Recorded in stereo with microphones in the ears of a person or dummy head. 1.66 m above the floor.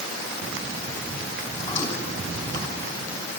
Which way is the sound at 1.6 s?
25° left (ahead or behind).